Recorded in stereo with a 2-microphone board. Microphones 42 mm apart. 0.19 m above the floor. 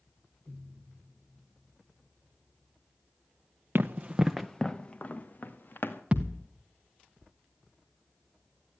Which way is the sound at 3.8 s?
50° right (ahead or behind).